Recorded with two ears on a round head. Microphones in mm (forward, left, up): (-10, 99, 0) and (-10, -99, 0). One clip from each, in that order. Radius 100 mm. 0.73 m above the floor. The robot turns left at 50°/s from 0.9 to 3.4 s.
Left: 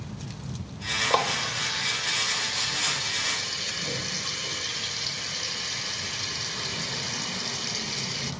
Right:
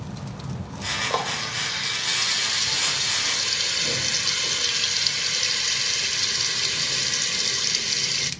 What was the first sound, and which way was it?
A running tap, 20° left.